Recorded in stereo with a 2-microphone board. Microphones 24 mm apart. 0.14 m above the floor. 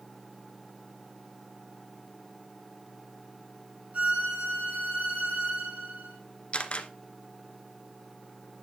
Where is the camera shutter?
45° left (ahead or behind), 1.0 m.